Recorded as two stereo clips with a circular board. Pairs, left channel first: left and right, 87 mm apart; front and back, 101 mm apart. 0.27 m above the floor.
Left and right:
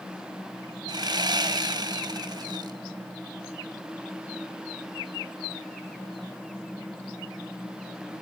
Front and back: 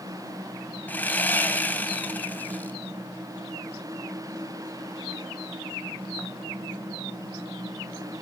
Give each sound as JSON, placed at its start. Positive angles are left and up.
{"t": 0.9, "sound": "sawing", "azimuth_deg": -70, "distance_m": 0.6}